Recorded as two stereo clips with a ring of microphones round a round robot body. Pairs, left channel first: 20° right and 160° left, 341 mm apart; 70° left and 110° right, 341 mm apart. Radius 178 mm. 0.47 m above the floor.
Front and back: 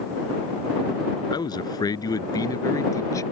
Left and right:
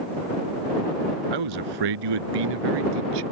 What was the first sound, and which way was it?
A man speaking, 100° right.